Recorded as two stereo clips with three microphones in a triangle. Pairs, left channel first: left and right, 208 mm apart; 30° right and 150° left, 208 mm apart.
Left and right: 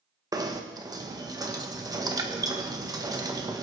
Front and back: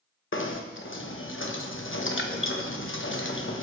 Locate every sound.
0.3 s knocking: 15° right, 1.2 m